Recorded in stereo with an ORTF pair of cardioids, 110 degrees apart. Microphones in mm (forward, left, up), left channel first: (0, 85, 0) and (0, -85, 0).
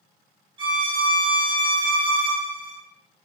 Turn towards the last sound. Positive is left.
turn(degrees=-25)